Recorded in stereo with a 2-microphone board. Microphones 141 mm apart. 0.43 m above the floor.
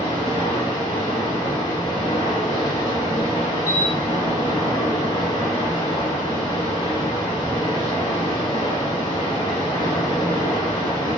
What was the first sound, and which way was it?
Running water, 35° left (ahead or behind).